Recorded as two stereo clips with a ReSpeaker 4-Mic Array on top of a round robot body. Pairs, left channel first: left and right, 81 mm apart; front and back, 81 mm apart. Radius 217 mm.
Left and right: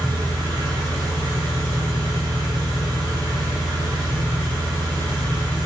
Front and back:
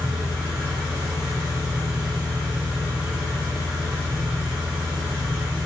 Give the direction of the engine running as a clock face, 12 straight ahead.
3 o'clock.